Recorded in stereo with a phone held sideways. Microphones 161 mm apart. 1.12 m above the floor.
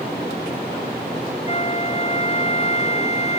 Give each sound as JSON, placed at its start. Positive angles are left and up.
{"t": 1.4, "sound": "a flute", "side_deg": 40}